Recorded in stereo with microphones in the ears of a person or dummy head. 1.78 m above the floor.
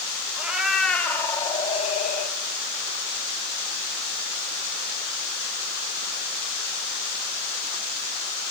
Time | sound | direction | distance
0.4 | a cat meowing | 10° right (ahead or behind) | 2.0 m